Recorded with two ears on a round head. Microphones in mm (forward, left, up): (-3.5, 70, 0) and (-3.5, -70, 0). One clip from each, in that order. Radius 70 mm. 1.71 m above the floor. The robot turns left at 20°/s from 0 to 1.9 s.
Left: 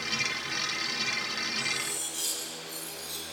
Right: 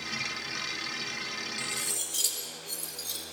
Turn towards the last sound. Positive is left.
turn(degrees=-45)  # may be behind; listen again after turning